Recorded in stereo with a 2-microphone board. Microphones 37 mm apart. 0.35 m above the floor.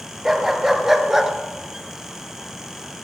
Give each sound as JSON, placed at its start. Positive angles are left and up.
{"t": 0.2, "sound": "a dog barking", "side_deg": -10, "distance_m": 2.0}